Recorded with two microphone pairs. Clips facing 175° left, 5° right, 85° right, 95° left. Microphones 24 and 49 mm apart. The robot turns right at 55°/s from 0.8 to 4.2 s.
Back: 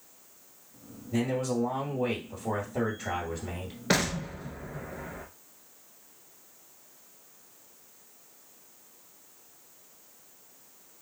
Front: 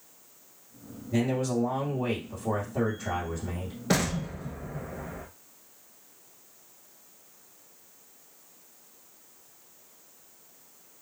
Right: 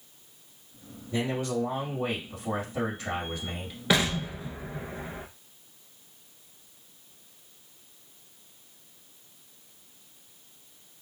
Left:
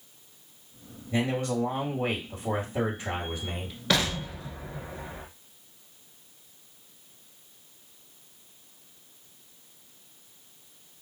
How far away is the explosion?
About 0.7 m.